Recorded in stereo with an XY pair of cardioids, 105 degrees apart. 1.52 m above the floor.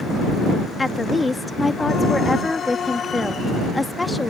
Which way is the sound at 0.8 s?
20° left.